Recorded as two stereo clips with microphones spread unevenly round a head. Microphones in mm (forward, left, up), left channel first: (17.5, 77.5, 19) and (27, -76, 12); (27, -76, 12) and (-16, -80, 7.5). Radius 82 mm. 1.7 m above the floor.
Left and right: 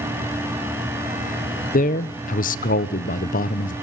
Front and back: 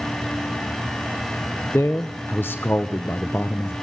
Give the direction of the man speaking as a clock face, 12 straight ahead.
10 o'clock.